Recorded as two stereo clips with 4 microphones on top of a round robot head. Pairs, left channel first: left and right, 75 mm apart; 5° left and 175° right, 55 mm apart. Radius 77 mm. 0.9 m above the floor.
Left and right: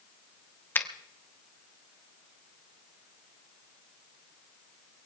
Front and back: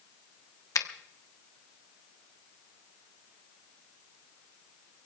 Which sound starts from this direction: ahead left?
A finger snap, at 0.8 s.